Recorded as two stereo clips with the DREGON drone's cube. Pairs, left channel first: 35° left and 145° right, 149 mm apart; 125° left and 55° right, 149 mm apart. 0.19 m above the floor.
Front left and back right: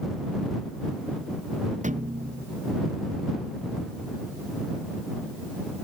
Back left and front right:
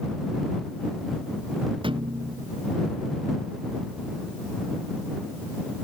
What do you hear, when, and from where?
1.8 s a thud: 110° right